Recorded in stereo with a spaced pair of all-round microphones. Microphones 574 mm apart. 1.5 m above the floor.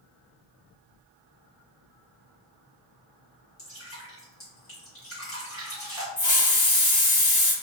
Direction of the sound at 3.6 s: 70° left (ahead or behind).